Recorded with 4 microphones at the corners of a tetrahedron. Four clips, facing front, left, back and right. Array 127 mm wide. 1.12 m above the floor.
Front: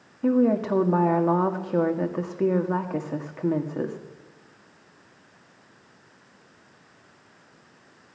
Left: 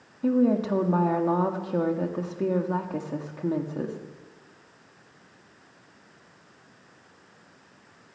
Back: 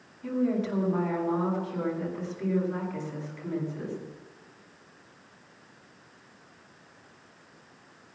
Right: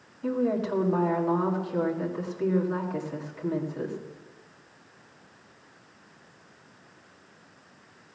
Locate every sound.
0.2 s a woman speaking: 25° left, 1.9 m